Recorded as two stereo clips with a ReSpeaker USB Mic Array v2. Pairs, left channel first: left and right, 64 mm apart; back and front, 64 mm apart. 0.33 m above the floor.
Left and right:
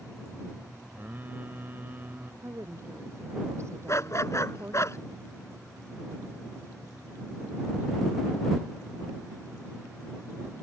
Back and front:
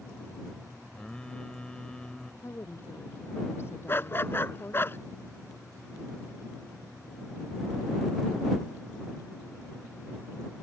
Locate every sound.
0.9 s singing: 115° right
2.4 s a woman speaking: 130° right
3.9 s a dog barking: 130° left